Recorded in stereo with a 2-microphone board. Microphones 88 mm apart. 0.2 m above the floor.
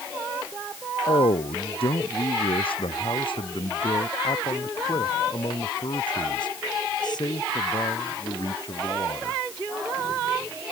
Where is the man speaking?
75° left (ahead or behind); by 9.4 s 45° left (ahead or behind).